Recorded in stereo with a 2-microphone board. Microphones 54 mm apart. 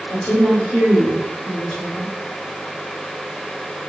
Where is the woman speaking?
20° left (ahead or behind), 1.7 m.